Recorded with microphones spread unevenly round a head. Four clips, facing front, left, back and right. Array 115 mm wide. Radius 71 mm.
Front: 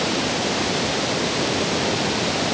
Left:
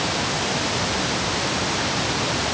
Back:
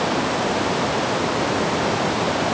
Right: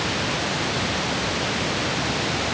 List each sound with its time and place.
Only background noise.